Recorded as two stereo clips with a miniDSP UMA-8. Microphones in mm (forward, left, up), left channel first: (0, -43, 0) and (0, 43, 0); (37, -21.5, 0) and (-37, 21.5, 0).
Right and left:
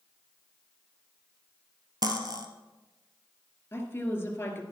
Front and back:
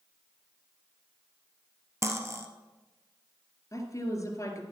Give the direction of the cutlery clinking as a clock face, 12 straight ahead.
9 o'clock.